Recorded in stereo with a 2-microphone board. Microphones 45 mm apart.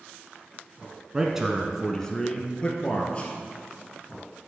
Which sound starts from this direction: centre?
A man speaking, at 1.1 s.